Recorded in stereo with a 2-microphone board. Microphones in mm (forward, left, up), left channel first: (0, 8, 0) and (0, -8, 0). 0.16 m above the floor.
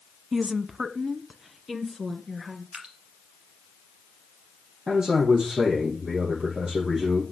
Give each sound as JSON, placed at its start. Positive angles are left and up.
{"t": 0.3, "sound": "a woman speaking", "side_deg": -20, "distance_m": 1.0}
{"t": 2.7, "sound": "dripping", "side_deg": -65, "distance_m": 3.0}
{"t": 4.9, "sound": "a man speaking", "side_deg": -50, "distance_m": 7.5}